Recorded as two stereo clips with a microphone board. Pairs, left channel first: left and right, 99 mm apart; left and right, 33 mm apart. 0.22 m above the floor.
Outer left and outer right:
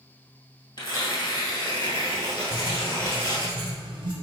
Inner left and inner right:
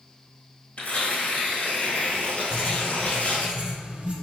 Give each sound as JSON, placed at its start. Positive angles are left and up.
{"t": 0.8, "sound": "tearing paper", "side_deg": 50, "distance_m": 1.2}
{"t": 2.5, "sound": "writing", "side_deg": -45, "distance_m": 0.9}